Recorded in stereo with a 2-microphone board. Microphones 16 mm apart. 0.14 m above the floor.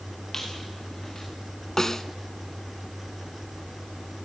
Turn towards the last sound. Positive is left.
turn(degrees=30)  # may be behind; listen again after turning